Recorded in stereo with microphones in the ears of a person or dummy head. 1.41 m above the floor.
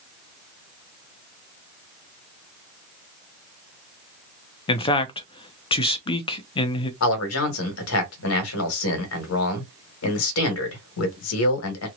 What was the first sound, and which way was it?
A man speaking, 25° left (ahead or behind).